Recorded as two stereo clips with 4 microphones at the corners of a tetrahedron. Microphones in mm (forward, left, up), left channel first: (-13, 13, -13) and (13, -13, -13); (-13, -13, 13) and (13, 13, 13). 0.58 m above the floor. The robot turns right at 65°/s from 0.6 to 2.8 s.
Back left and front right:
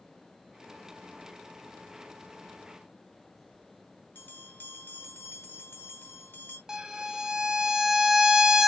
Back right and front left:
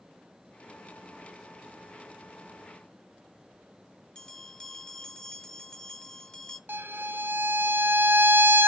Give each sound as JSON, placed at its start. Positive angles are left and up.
{"t": 4.2, "sound": "a bell", "azimuth_deg": 155, "distance_m": 1.1}
{"t": 6.7, "sound": "a violin", "azimuth_deg": 30, "distance_m": 0.6}